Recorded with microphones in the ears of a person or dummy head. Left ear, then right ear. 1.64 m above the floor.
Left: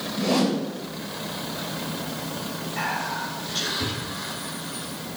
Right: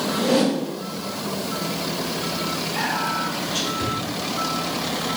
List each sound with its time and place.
0.2 s a whoosh: 15° left (ahead or behind), 1.7 m
2.8 s whispering: 25° right (ahead or behind), 1.7 m